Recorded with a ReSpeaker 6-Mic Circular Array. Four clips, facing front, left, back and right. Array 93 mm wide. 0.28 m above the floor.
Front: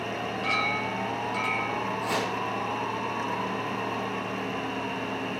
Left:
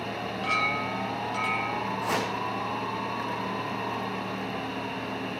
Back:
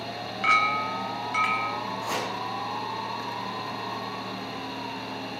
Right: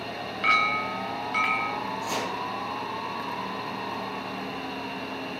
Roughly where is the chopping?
Left.